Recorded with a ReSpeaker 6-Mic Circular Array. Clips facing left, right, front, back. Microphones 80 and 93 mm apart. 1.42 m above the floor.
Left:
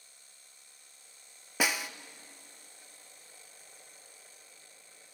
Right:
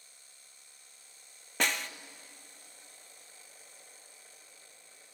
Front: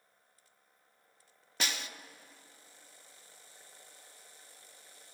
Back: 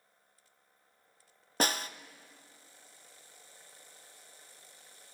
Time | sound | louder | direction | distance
1.6 | a snare drum | left 1 dB, back 7 dB | 165° left | 0.6 m